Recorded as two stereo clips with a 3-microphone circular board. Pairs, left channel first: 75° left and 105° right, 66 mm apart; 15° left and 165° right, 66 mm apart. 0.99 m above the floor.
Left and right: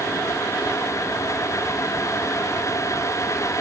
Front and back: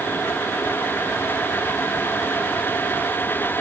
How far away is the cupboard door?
No cupboard door in this recording.